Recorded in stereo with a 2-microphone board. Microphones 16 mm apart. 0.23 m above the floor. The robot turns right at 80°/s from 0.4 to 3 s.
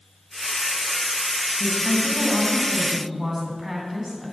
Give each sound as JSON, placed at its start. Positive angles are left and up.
{"t": 1.6, "sound": "a woman speaking", "azimuth_deg": 100, "distance_m": 1.4}